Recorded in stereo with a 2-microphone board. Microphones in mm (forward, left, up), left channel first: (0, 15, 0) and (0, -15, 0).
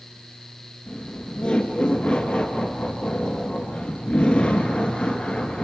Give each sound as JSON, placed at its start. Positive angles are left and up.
{"t": 0.9, "sound": "laughter", "side_deg": 30, "distance_m": 1.9}